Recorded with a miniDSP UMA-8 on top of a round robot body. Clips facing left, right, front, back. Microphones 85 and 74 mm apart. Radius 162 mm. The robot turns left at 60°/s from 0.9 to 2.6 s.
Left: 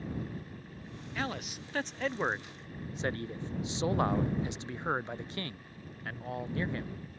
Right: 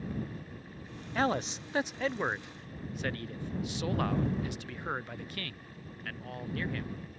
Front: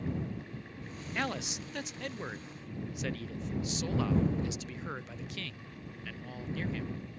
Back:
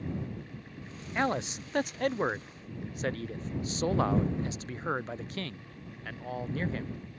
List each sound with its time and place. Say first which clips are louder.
1.1 s a man speaking: right 7 dB, back 6 dB; 125° right; by 7.0 s 150° left